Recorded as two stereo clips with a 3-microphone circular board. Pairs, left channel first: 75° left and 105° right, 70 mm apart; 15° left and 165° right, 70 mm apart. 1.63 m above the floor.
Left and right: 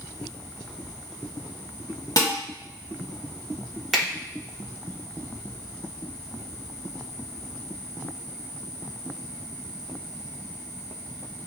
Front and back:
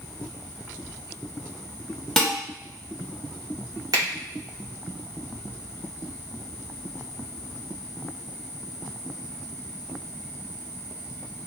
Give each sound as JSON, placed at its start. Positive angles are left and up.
{"t": 2.2, "sound": "dishes clattering", "azimuth_deg": 100, "distance_m": 1.8}
{"t": 3.9, "sound": "a finger snap", "azimuth_deg": 165, "distance_m": 2.0}